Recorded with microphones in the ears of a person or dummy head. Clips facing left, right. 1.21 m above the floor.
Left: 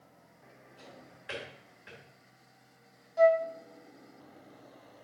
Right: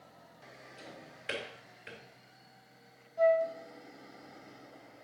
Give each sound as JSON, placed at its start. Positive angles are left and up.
{"t": 0.8, "sound": "a drawer", "side_deg": -40, "distance_m": 2.0}
{"t": 3.2, "sound": "a flute", "side_deg": 85, "distance_m": 0.9}